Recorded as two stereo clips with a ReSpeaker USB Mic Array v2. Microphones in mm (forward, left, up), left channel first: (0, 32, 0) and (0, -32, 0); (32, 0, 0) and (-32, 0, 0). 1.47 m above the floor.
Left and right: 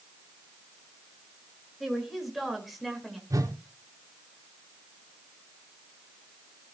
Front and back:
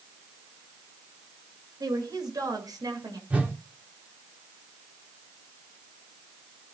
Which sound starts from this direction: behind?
A woman speaking, at 1.8 s.